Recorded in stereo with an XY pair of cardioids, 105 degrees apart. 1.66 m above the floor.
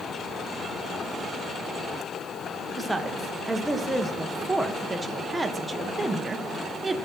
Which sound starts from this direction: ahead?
A woman speaking, at 2.8 s.